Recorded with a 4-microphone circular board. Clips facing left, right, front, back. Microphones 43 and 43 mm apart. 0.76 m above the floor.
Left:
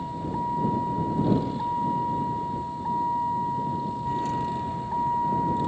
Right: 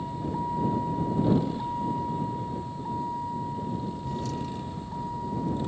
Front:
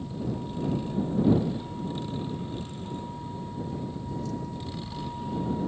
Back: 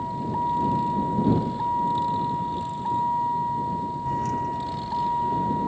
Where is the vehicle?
170° left; by 5.7 s 135° left.